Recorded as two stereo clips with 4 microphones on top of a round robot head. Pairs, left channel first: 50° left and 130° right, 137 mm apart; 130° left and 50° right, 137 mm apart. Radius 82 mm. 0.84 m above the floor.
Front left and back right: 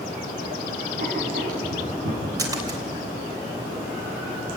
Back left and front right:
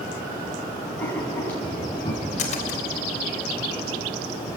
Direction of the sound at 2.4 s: 165° left.